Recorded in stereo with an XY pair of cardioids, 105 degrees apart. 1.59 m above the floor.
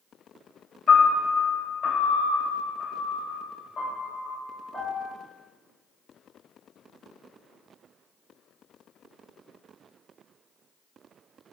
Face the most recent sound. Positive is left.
turn(degrees=60)